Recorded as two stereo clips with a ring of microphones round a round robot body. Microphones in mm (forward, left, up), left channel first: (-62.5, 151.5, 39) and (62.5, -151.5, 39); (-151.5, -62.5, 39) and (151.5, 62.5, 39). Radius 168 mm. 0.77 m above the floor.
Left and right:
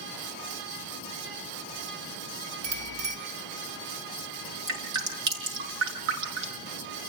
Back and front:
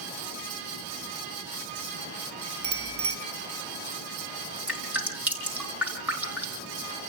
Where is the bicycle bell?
25° right, 5.5 m.